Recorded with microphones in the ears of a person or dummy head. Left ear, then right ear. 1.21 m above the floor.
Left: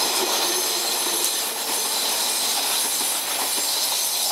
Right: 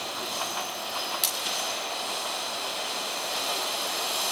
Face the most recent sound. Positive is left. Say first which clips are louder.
# left 3 dB
turn(degrees=-40)  # may be behind; listen again after turning